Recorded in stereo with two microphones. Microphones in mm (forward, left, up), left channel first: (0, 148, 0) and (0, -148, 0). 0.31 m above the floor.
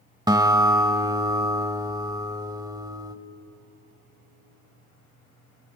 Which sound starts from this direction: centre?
A guitar, at 0.3 s.